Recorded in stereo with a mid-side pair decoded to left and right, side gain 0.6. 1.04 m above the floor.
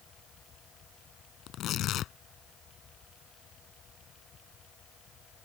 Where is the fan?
45° left.